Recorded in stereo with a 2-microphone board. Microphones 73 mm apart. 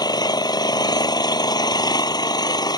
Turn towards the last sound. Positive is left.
turn(degrees=70)  # may be behind; listen again after turning